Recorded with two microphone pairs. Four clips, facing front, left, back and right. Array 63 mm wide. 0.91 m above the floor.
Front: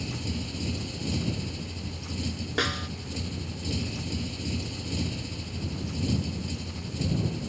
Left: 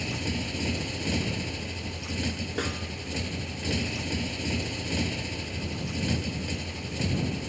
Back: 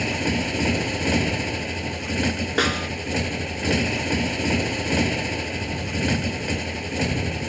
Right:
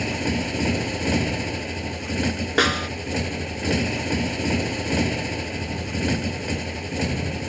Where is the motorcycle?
155° right.